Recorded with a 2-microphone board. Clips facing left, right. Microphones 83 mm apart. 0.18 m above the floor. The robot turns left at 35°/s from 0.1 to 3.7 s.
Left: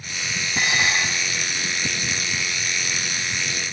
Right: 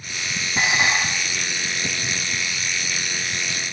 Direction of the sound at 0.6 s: 5° right (ahead or behind).